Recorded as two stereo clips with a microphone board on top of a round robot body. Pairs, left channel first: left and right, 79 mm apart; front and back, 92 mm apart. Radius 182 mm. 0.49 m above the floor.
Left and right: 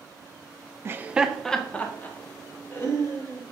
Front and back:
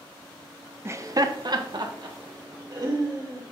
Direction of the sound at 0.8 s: 130° right.